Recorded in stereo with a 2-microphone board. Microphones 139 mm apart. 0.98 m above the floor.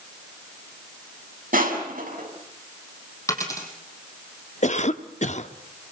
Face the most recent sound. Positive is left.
turn(degrees=55)  # may be behind; listen again after turning